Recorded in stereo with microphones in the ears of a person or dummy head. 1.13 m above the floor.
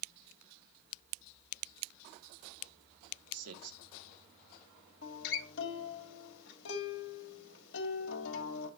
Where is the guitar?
70° left (ahead or behind), 2 m.